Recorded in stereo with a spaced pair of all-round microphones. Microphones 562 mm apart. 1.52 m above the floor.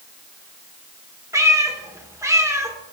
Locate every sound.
1.3 s a cat meowing: 5° right (ahead or behind), 1.2 m